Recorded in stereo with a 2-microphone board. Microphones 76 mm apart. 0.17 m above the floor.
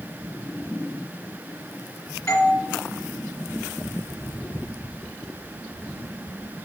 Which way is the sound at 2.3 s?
45° left (ahead or behind).